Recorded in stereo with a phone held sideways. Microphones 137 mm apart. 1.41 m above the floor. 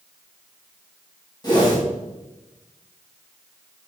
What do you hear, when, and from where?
1.4 s a whoosh: 30° left (ahead or behind), 2.5 m